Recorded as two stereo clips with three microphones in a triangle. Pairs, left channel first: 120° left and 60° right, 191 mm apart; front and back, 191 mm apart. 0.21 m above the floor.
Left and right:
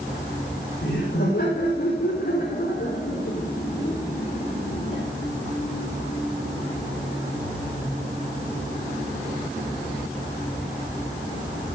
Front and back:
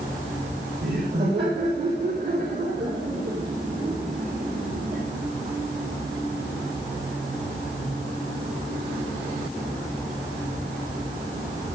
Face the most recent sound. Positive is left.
turn(degrees=175)